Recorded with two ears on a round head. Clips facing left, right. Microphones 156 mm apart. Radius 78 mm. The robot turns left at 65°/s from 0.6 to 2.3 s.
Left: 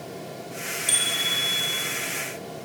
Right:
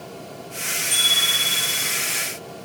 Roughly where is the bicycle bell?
Left.